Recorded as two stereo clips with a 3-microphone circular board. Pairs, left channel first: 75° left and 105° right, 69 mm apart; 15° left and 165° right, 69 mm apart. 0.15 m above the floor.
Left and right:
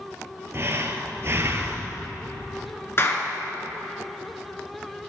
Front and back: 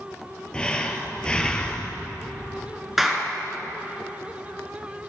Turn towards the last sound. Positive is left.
turn(degrees=110)